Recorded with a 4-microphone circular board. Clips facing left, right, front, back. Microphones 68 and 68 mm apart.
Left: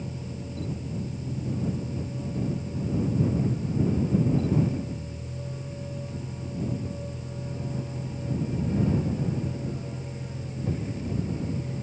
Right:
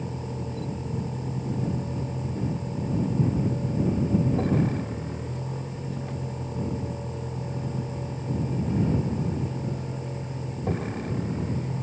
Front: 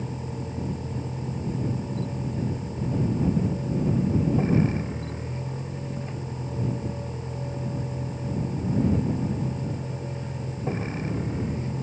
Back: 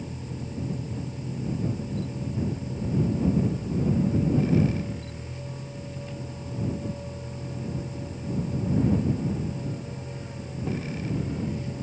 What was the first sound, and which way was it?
A vehicle, 60° right.